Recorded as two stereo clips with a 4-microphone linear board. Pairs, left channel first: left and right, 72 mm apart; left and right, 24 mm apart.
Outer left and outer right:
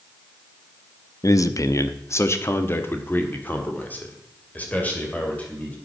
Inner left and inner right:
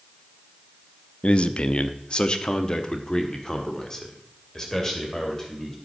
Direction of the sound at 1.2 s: 50° left (ahead or behind).